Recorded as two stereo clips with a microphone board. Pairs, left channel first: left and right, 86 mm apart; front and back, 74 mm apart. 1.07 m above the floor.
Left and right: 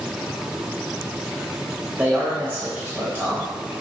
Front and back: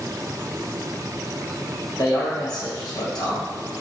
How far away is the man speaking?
About 1.0 m.